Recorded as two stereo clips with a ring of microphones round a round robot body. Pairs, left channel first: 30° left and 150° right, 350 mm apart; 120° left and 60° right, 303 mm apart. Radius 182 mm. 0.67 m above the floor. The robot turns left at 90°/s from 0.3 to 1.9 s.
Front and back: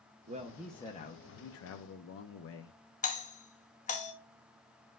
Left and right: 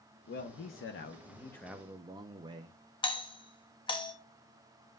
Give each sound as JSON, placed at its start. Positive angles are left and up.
{"t": 0.3, "sound": "a man speaking", "azimuth_deg": 155, "distance_m": 0.6}
{"t": 3.0, "sound": "a doorbell", "azimuth_deg": 65, "distance_m": 0.9}